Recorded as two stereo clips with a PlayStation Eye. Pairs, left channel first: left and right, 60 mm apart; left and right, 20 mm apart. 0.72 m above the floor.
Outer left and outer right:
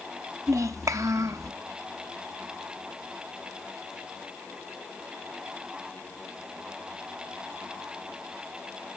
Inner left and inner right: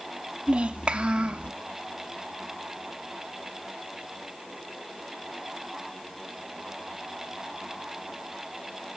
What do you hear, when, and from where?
0.5 s a child speaking: 65° right (ahead or behind), 1.0 m